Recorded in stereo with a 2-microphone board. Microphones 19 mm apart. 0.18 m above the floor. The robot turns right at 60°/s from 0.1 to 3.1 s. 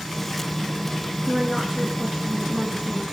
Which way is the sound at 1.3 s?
Straight behind.